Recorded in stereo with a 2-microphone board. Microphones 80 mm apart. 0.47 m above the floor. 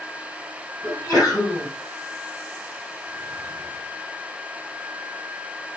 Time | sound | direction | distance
0.8 | a sneeze | 55° left (ahead or behind) | 2.5 m